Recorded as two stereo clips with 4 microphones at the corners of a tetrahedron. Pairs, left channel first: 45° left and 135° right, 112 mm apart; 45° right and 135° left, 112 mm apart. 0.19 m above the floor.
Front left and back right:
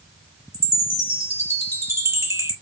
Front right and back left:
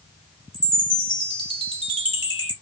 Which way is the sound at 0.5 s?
170° left.